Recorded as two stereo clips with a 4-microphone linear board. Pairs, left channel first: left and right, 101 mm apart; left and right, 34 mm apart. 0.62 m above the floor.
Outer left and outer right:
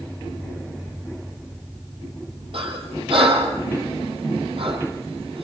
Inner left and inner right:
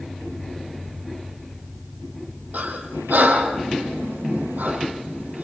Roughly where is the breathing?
Right.